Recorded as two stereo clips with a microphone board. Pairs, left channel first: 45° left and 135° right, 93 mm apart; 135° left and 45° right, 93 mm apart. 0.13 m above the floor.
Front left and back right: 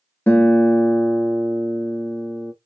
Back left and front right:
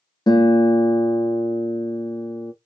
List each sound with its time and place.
0.3 s a guitar: 110° left, 0.8 m